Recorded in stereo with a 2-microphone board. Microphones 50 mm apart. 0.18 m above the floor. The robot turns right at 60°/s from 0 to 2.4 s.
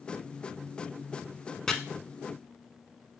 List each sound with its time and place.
1.7 s chopping: 10° left (ahead or behind), 0.5 m